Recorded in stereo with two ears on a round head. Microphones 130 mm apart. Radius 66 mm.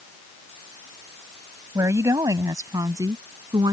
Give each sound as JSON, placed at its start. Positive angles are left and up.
{"t": 1.8, "sound": "a woman speaking", "side_deg": -20}